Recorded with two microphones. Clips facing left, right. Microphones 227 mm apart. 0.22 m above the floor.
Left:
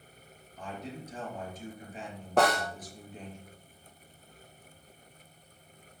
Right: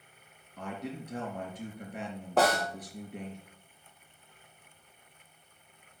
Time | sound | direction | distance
0.6 | a man speaking | 70° right (ahead or behind) | 4 m
2.4 | a snare drum | centre (ahead or behind) | 3 m